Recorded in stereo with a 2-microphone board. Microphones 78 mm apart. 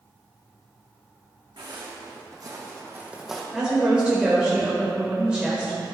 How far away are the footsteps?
About 3 m.